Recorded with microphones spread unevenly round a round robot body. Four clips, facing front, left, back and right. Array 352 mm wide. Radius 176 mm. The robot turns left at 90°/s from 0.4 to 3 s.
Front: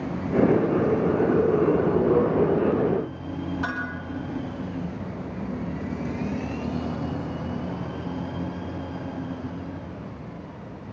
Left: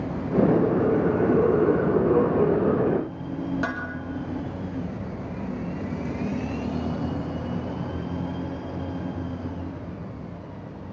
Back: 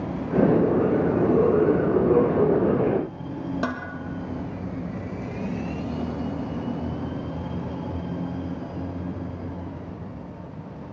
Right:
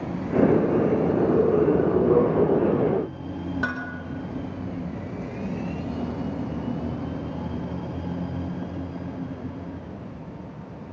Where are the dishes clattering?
160° right, 4.5 m.